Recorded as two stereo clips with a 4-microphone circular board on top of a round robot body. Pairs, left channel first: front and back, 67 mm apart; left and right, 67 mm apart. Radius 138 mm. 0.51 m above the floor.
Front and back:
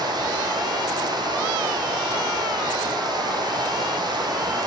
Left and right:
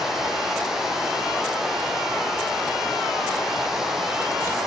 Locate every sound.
0.0 s running water: 175° right, 6.5 m